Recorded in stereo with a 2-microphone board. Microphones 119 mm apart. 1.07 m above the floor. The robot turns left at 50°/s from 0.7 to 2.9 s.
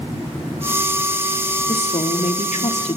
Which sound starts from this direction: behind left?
A woman speaking, at 1.7 s.